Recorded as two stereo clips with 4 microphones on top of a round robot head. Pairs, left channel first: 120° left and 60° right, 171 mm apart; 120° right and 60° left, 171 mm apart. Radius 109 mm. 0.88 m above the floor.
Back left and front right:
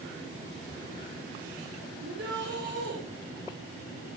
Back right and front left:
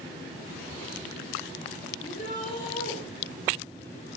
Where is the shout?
75° right, 5.5 m.